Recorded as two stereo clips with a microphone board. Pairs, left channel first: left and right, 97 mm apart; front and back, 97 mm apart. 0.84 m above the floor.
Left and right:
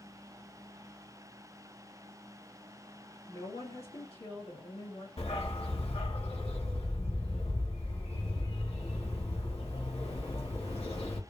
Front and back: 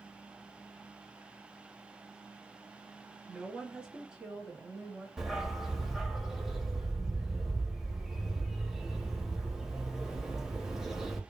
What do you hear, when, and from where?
3.3 s a woman speaking: 100° left, 1.9 m
5.2 s a dog barking: 95° left, 1.3 m